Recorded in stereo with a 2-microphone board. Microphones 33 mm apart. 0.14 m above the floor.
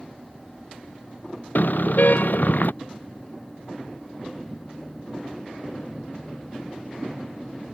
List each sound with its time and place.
1.6 s a car horn: 65° left (ahead or behind)